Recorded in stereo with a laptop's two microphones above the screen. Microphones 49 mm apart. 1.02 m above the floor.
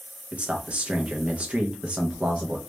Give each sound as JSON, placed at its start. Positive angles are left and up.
{"t": 0.3, "sound": "a man speaking", "side_deg": -25, "distance_m": 0.5}